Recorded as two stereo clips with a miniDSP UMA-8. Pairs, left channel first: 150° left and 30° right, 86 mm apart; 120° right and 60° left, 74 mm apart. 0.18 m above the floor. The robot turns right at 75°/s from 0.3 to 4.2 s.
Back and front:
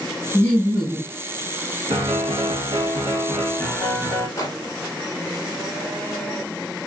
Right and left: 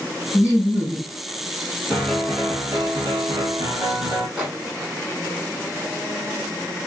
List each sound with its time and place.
0.3 s laughter: 155° right, 1.8 m; by 1.1 s 95° right, 1.8 m
1.9 s a piano: 50° right, 1.8 m; by 4.3 s 120° left, 1.8 m
4.4 s a microwave: 130° left, 1.1 m